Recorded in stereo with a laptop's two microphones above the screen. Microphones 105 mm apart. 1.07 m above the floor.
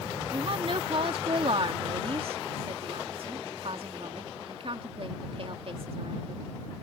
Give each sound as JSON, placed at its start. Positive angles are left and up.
{"t": 0.3, "sound": "a woman speaking", "side_deg": -55}